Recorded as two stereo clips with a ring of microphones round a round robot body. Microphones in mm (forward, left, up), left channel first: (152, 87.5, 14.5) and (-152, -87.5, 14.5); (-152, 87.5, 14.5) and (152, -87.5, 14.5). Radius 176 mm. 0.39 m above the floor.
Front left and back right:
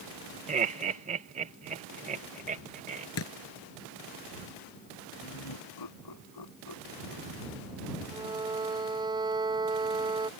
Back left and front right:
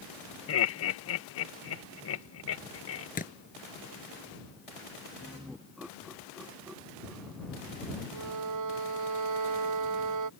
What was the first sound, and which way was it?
Laughter, 155° left.